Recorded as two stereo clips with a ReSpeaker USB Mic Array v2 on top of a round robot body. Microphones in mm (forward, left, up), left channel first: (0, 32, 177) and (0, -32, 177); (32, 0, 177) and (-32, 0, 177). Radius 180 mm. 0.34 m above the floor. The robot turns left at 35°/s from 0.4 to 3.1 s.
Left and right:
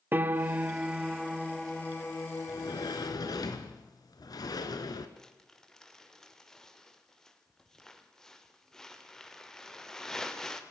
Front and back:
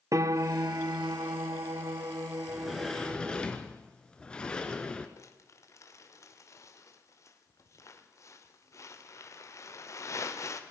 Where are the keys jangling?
No keys jangling in this recording.